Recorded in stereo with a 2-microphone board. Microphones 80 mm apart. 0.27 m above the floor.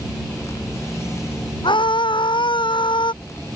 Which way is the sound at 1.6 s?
80° left.